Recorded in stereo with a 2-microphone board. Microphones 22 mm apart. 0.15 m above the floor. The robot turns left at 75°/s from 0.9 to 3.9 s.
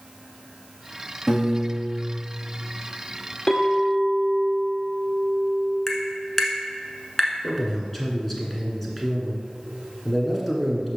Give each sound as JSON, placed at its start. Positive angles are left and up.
{"t": 1.3, "sound": "a piano", "azimuth_deg": -10, "distance_m": 2.5}
{"t": 3.5, "sound": "a clink", "azimuth_deg": 65, "distance_m": 1.5}
{"t": 5.9, "sound": "tapping", "side_deg": 20, "distance_m": 1.0}
{"t": 7.4, "sound": "a man speaking", "side_deg": 10, "distance_m": 1.3}